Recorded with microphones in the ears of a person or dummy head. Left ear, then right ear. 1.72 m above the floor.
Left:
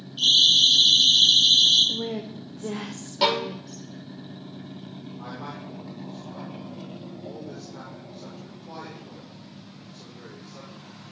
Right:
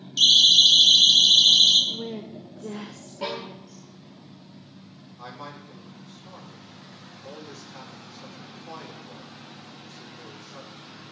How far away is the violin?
About 1.8 m.